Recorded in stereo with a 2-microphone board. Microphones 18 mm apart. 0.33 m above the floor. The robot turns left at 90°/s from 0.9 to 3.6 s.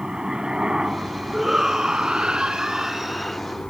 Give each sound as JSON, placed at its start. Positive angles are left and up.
{"t": 0.0, "sound": "a helicopter", "side_deg": -55}
{"t": 1.3, "sound": "a shout", "azimuth_deg": -5}